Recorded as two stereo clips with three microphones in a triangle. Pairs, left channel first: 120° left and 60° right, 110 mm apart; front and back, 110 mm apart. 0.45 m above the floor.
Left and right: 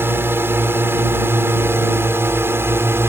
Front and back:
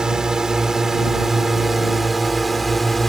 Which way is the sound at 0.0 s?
105° right.